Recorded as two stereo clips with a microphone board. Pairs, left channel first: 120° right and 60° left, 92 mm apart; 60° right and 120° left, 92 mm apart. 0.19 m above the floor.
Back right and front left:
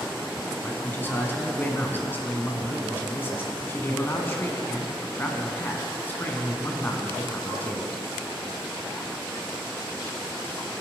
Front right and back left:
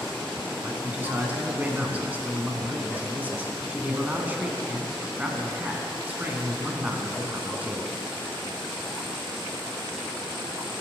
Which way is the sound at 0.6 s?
175° right.